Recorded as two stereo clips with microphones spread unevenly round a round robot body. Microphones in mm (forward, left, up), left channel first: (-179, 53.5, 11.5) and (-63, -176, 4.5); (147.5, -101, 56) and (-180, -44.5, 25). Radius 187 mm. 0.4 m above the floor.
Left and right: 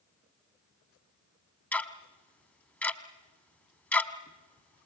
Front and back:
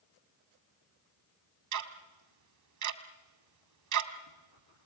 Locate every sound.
1.7 s ticking: 160° right, 2.0 m